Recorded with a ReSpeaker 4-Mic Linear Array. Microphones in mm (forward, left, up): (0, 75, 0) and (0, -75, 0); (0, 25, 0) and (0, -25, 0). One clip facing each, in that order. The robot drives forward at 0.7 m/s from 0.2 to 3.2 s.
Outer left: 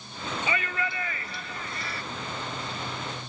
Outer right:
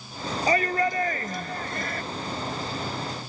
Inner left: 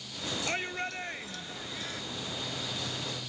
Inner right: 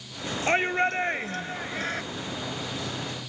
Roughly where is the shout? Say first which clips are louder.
Outer right 10 dB, inner right 13 dB; right.